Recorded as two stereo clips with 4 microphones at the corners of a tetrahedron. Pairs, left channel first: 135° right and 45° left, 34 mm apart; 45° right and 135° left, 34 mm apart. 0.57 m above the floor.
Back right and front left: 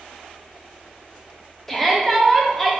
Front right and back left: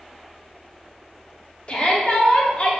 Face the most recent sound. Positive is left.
turn(degrees=-55)